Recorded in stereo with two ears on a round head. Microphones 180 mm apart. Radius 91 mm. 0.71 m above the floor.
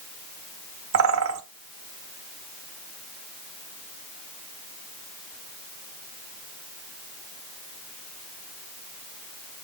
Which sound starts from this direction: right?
A bird, at 0.9 s.